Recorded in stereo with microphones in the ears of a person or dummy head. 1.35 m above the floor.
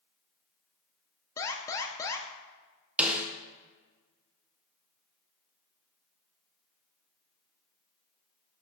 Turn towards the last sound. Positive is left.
turn(degrees=-5)  # may be behind; listen again after turning